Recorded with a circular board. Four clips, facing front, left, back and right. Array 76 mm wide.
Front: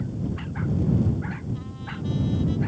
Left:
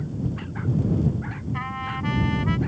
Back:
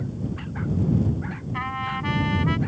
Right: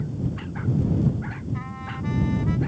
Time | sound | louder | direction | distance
1.5 | a trumpet | left 4 dB, back 8 dB | 150° left | ?